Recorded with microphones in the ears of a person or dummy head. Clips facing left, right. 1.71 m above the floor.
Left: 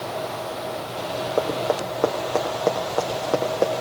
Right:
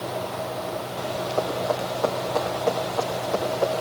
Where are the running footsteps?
45° left (ahead or behind), 6.5 m; by 3.7 s 55° left (ahead or behind), 5 m.